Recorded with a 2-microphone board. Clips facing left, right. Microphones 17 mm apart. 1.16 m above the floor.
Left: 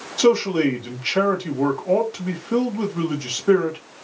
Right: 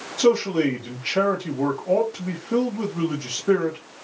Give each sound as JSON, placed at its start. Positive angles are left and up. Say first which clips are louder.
{"t": 0.2, "sound": "a man speaking", "louder": "left 2 dB", "side_deg": 40, "distance_m": 1.8}